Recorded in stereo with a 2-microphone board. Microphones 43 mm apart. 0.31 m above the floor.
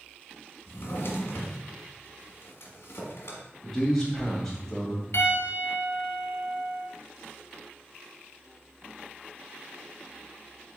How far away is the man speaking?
About 1.7 m.